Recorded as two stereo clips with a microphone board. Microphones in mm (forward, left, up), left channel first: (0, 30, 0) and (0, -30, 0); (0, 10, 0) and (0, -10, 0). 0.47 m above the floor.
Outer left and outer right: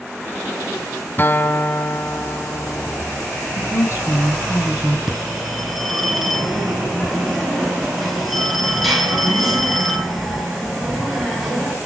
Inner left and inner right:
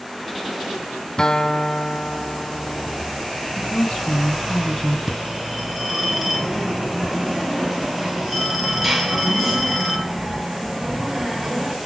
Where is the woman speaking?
45° left (ahead or behind), 6.5 m.